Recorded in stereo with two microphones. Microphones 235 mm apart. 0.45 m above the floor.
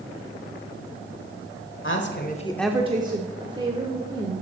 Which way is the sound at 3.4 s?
20° right (ahead or behind).